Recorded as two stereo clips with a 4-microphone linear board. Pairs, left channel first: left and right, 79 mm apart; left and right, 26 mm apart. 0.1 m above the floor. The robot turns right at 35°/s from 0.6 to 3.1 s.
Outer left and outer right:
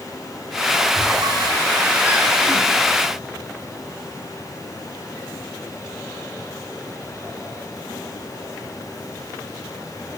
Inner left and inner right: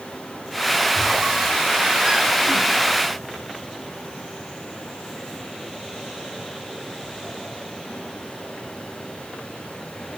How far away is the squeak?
About 7 m.